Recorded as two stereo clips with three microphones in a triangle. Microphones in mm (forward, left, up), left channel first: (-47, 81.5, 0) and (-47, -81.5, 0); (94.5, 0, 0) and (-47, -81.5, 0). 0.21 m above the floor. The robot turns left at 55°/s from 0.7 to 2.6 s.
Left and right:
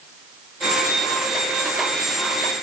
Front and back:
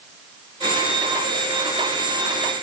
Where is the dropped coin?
I don't hear a dropped coin.